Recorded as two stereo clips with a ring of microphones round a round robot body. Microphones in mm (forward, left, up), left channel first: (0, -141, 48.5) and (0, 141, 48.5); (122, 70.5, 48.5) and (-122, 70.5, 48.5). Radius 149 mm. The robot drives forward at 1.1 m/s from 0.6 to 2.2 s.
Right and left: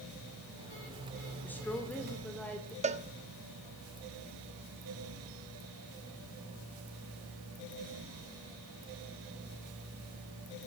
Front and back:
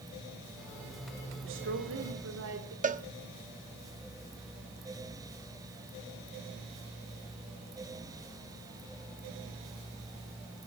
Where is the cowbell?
140° left, 1.0 m.